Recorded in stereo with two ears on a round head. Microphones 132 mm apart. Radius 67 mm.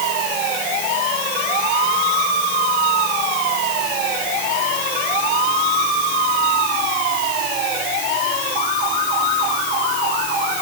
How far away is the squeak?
I don't hear a squeak.